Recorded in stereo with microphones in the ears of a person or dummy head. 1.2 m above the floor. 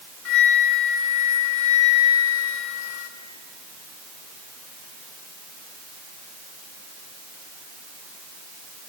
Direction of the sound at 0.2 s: 80° left.